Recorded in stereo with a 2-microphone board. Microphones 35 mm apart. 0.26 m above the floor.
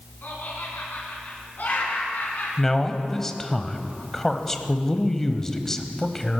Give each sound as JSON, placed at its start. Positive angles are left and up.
{"t": 0.2, "sound": "laughter", "side_deg": 60, "distance_m": 3.0}
{"t": 2.6, "sound": "a man speaking", "side_deg": 15, "distance_m": 1.0}